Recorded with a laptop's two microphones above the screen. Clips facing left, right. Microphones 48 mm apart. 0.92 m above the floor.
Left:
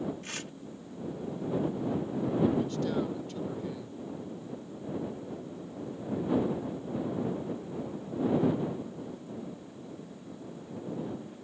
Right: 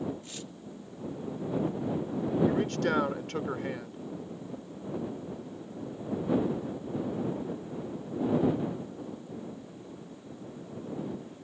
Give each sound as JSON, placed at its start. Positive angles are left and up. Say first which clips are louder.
{"t": 0.2, "sound": "tearing paper", "louder": "left 3 dB", "side_deg": 70}
{"t": 2.5, "sound": "a man speaking", "louder": "right 2 dB", "side_deg": -65}